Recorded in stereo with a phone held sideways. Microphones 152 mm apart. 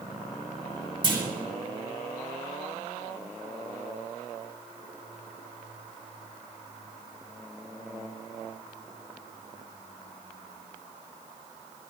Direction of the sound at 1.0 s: 35° right (ahead or behind).